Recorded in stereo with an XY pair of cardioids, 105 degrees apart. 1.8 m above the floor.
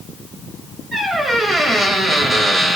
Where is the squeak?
35° right, 5 m.